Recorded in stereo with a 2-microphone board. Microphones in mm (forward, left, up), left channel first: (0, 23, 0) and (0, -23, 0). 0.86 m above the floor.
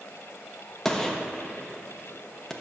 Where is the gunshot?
10° left (ahead or behind), 0.8 m.